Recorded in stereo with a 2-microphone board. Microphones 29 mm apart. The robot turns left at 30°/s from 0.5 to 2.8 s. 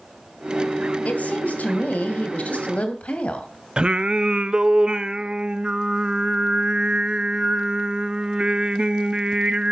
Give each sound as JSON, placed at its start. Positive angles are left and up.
{"t": 1.1, "sound": "a woman speaking", "azimuth_deg": 110, "distance_m": 2.5}
{"t": 3.8, "sound": "singing", "side_deg": -35, "distance_m": 0.7}